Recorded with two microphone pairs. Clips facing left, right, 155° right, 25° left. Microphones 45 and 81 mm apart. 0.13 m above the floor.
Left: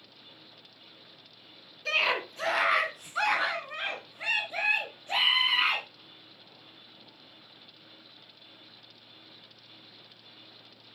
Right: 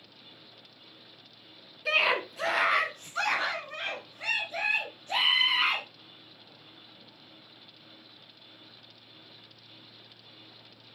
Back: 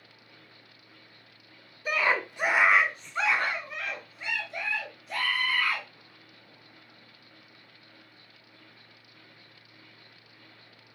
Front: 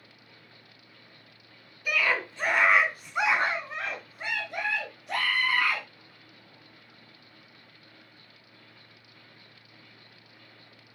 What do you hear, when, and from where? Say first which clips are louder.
1.9 s a scream: right 2 dB, back 1 dB; 155° right, 1.4 m; by 5.8 s 25° left, 2.5 m